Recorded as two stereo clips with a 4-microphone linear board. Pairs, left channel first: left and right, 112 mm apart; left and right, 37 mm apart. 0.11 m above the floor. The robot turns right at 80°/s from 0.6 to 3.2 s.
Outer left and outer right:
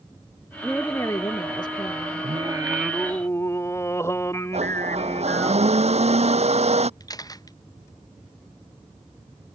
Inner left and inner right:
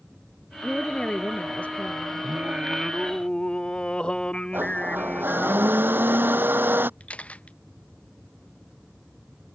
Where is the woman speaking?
5° left; by 2.3 s 140° left.